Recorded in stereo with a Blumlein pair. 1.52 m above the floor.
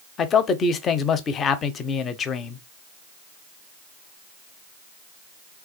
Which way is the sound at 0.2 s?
25° left.